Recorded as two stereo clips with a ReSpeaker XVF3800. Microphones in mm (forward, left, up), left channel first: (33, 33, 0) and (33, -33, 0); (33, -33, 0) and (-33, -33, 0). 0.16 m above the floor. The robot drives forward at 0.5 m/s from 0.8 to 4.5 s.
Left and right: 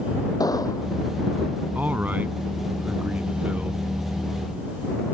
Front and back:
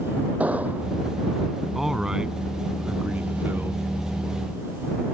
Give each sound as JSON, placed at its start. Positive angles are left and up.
{"t": 0.4, "sound": "an explosion", "azimuth_deg": 110}
{"t": 1.8, "sound": "a man speaking", "azimuth_deg": -100}